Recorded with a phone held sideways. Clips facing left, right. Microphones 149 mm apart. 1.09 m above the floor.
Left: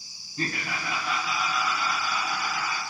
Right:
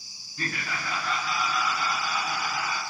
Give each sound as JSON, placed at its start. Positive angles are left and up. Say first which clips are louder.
{"t": 0.4, "sound": "laughter", "louder": "left 2 dB", "side_deg": 30, "distance_m": 0.6}